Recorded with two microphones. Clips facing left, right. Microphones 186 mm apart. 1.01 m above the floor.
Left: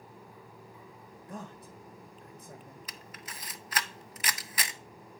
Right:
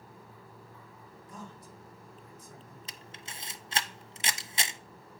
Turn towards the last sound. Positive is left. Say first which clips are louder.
# left 1 dB
turn(degrees=-25)  # may be behind; listen again after turning